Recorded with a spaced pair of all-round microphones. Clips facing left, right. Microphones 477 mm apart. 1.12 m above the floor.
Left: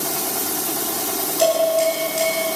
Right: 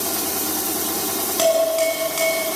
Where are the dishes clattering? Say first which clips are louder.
Left 1 dB; 85° right, 7.5 m.